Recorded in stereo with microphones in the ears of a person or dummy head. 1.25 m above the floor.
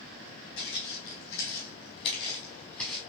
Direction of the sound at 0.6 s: 65° left (ahead or behind).